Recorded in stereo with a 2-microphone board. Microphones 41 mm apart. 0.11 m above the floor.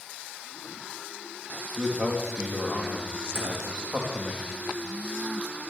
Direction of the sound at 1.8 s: 35° right (ahead or behind).